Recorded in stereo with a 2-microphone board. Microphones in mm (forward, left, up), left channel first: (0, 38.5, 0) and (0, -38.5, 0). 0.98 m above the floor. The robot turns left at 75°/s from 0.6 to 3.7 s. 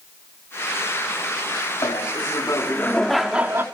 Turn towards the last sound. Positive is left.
turn(degrees=-40)